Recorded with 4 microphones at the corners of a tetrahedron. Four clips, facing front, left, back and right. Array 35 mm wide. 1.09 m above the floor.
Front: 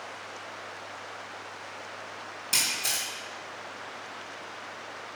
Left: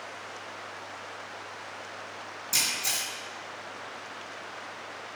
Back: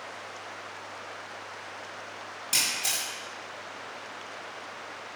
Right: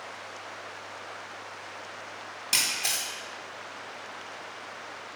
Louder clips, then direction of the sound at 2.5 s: Right 1 dB, even; 90° right.